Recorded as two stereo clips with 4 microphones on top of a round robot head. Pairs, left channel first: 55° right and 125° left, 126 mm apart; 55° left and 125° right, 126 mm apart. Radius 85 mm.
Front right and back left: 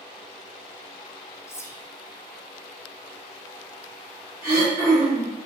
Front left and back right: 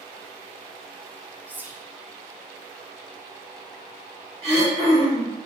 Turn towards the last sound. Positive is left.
turn(degrees=-165)